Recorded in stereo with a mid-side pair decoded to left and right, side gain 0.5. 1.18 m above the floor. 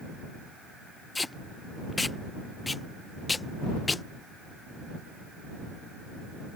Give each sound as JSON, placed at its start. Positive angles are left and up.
{"t": 1.1, "sound": "tape being pulled", "azimuth_deg": 20}